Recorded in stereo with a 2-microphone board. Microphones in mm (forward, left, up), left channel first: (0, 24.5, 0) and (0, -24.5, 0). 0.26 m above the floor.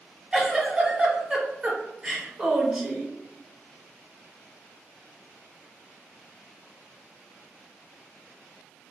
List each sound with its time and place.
0.3 s a giggle: 20° right (ahead or behind), 0.7 m